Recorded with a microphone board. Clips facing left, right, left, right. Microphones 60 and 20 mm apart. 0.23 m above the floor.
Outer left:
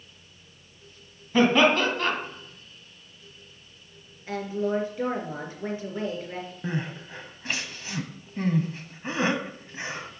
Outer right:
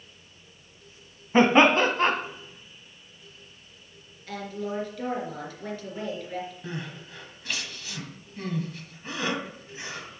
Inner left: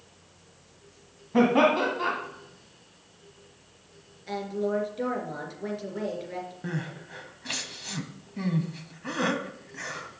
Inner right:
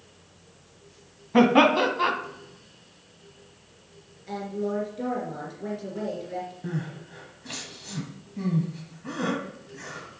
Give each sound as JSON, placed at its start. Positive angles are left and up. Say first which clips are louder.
{"t": 1.3, "sound": "laughter", "louder": "outer right 2 dB, inner right 3 dB", "side_deg": -30, "distance_m": 1.4}
{"t": 4.3, "sound": "a woman speaking", "louder": "outer left 5 dB, inner left 1 dB", "side_deg": 20, "distance_m": 3.0}
{"t": 6.6, "sound": "crying", "louder": "outer left 5 dB, inner right 1 dB", "side_deg": 30, "distance_m": 1.2}